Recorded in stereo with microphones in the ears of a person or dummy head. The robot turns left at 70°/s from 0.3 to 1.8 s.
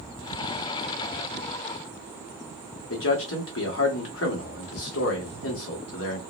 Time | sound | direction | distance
2.9 | a man speaking | 65° left (ahead or behind) | 1.3 m